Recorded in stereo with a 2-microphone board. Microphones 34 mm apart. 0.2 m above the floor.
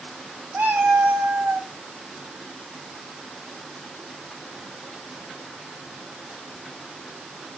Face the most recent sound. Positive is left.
turn(degrees=-85)